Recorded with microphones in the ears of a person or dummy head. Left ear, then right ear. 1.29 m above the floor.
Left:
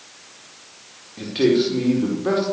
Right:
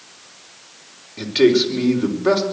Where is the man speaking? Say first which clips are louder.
Right 3 dB; 20° right (ahead or behind), 4 m.